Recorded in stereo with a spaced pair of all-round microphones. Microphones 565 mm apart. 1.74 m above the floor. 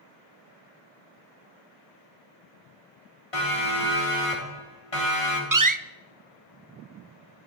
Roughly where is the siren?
Left.